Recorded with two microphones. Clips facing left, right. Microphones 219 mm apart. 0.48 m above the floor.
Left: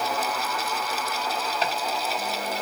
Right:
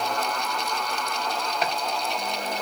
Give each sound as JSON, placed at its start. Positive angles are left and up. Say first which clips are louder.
{"t": 1.6, "sound": "chopping", "louder": "right 1 dB", "side_deg": -5, "distance_m": 1.4}